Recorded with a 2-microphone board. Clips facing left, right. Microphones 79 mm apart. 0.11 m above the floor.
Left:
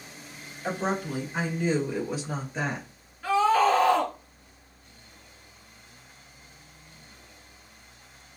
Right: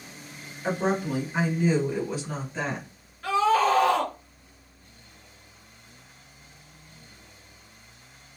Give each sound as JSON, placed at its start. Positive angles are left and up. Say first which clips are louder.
{"t": 0.6, "sound": "a woman speaking", "louder": "right 3 dB", "side_deg": -20, "distance_m": 1.6}
{"t": 3.2, "sound": "a scream", "louder": "even", "side_deg": 5, "distance_m": 1.7}